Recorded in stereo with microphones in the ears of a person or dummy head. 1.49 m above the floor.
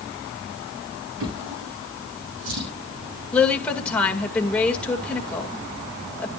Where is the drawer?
85° right, 8.5 m.